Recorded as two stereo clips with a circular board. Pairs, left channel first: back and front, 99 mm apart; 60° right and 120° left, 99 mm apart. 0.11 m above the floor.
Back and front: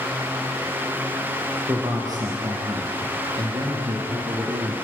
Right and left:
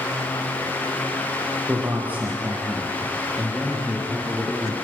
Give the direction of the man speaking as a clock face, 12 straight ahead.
10 o'clock.